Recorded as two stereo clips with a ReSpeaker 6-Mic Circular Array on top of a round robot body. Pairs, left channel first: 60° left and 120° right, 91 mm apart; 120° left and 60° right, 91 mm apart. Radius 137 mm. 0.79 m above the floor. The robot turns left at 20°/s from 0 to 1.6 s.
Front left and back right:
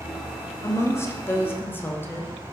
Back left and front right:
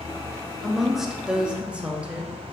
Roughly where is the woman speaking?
Ahead left.